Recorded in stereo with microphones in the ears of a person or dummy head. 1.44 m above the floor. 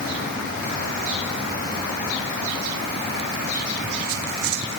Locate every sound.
Only background noise.